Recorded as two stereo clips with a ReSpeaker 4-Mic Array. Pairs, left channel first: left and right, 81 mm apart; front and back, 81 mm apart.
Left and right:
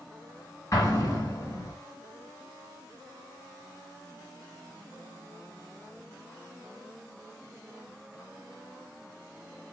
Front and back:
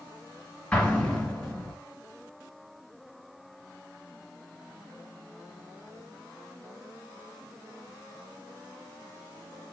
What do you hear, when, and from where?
0.7 s an explosion: 75° left, 1.7 m